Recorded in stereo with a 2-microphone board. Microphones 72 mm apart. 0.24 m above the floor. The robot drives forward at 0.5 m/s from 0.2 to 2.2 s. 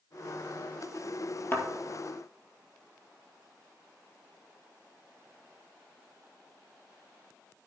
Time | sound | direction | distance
1.5 | a thud | 30° left (ahead or behind) | 2 m